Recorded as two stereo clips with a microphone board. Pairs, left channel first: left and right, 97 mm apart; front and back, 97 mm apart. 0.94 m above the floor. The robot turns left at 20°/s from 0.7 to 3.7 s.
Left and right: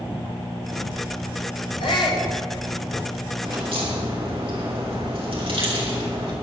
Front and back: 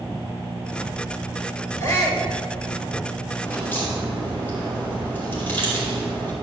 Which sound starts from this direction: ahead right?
A crack, at 3.4 s.